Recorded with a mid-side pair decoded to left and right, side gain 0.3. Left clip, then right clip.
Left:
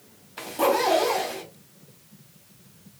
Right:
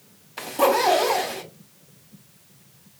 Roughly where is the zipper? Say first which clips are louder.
Right 3 dB; ahead right.